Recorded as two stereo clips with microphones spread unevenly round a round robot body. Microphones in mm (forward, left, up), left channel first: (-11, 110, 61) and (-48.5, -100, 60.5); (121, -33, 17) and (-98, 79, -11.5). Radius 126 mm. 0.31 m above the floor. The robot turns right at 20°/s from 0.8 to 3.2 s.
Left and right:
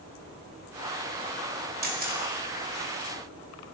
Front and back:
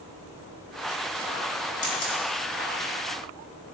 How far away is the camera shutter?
About 2.0 m.